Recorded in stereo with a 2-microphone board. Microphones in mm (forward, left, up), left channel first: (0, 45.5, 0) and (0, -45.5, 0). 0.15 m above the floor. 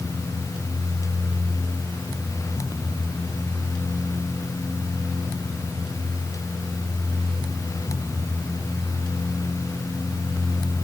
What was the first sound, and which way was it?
Only background noise.